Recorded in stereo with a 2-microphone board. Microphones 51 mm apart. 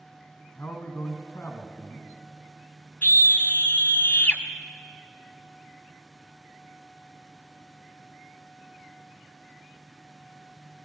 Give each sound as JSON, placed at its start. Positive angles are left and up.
{"t": 0.6, "sound": "a man speaking", "side_deg": 45, "distance_m": 1.9}
{"t": 3.0, "sound": "a scream", "side_deg": 35, "distance_m": 1.2}